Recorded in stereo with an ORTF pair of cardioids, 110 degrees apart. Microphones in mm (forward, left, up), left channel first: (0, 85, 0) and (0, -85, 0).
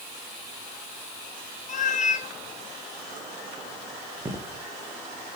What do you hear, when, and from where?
1.7 s a cat meowing: 50° left, 1.4 m
4.2 s footsteps: 15° right, 3.5 m